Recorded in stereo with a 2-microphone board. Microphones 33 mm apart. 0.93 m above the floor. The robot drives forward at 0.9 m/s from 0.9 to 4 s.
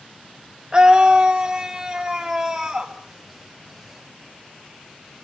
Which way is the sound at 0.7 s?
30° right (ahead or behind).